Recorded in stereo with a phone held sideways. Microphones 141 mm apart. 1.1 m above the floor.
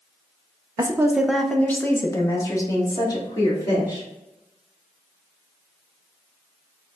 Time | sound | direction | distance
0.8 | a woman speaking | 25° right (ahead or behind) | 0.5 m